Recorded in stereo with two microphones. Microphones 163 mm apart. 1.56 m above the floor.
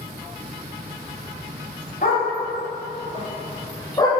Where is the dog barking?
55° left (ahead or behind), 2.5 m; by 4.1 s 25° left (ahead or behind), 1.6 m.